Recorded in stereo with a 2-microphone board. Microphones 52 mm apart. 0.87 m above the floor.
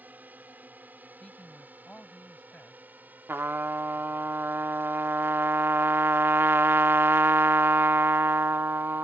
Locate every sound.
0.0 s a drone: 35° right (ahead or behind)
1.2 s a man speaking: 25° left (ahead or behind)
3.3 s a trumpet: 50° right (ahead or behind)